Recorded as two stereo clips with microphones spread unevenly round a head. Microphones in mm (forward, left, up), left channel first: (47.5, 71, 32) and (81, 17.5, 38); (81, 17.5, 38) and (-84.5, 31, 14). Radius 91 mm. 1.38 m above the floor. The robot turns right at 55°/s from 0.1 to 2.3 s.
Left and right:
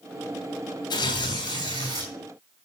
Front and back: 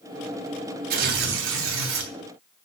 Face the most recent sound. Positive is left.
turn(degrees=-145)